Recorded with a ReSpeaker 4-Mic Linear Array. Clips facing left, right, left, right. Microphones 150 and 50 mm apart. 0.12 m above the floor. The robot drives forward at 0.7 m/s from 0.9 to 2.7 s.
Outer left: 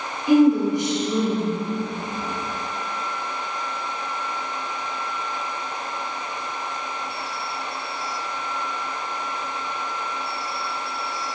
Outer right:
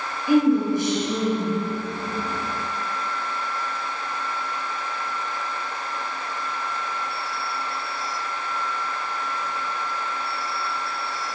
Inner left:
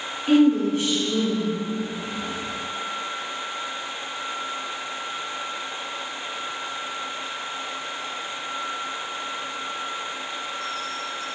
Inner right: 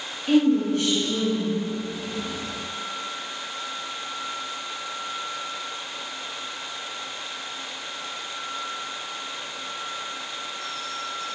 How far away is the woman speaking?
About 1.3 m.